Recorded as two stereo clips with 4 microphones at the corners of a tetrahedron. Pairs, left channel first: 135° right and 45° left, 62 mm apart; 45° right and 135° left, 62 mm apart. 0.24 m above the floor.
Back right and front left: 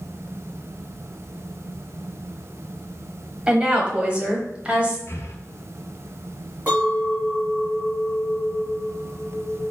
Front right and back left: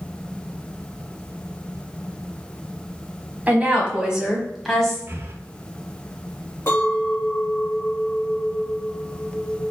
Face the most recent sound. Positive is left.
turn(degrees=-10)